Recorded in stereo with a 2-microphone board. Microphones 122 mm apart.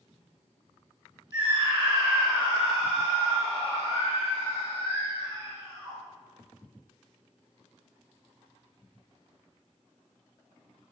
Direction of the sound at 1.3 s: 35° right (ahead or behind).